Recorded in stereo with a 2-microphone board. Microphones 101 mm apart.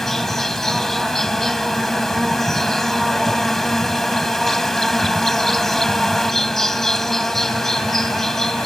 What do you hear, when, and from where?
0.0 s an insect: 5° left (ahead or behind)